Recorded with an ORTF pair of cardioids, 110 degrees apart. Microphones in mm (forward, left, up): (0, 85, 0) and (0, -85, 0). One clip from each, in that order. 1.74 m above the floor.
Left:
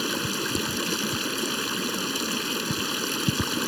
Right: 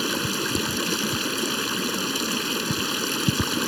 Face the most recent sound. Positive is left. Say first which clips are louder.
# right 2 dB
turn(degrees=-10)